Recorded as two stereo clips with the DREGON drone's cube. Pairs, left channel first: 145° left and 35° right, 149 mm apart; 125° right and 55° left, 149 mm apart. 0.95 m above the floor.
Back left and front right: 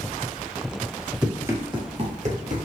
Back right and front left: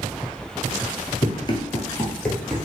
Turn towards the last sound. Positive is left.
turn(degrees=-35)